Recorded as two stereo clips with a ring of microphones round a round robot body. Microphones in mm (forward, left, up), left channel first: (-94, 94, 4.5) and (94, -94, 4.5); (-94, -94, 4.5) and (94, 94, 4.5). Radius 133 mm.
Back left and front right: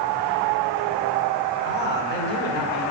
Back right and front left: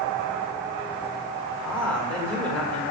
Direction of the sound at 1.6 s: 145° left.